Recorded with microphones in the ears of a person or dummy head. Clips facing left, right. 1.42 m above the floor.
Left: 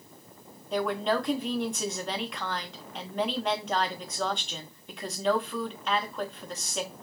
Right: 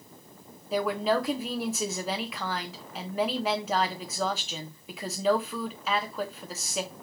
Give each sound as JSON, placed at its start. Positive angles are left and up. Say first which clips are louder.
{"t": 0.7, "sound": "a woman speaking", "louder": "right 1 dB", "side_deg": 0, "distance_m": 0.7}